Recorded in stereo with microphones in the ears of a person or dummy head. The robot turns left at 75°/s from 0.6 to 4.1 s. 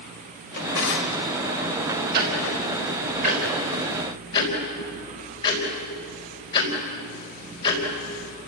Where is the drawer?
125° left, 2 m; by 1.2 s 75° left, 2 m.